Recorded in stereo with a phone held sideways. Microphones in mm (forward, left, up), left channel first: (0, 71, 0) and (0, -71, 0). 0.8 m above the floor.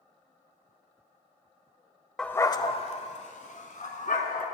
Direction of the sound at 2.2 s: 5° left (ahead or behind).